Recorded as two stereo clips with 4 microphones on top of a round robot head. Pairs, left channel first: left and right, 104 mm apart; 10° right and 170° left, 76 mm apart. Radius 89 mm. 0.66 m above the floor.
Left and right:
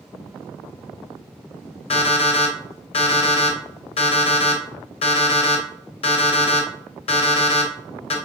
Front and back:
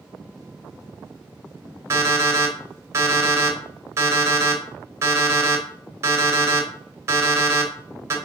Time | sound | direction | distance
1.9 | an alarm clock | 115° left | 1.7 m